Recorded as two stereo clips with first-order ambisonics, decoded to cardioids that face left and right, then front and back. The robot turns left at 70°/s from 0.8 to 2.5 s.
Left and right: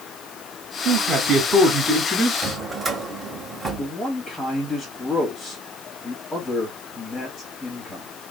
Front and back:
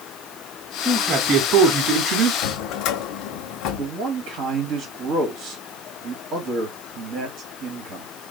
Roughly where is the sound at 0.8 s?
Right.